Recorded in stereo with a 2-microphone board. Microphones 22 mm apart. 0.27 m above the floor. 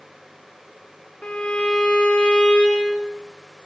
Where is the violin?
85° left, 5.5 m.